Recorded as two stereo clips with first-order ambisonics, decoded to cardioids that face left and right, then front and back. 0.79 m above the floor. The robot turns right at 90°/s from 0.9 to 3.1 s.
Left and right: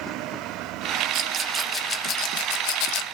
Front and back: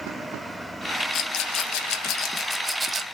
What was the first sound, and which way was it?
A rattle, 50° right.